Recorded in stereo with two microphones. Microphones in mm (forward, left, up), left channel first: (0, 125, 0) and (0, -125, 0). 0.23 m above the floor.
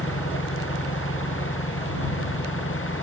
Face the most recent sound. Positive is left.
turn(degrees=55)  # may be behind; listen again after turning